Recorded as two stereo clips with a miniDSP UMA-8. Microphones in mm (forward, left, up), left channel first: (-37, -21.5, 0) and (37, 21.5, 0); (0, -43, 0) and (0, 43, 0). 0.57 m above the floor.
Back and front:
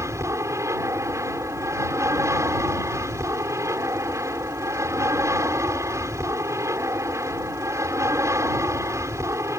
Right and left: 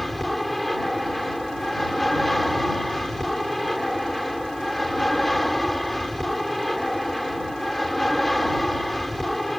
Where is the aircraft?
Straight ahead.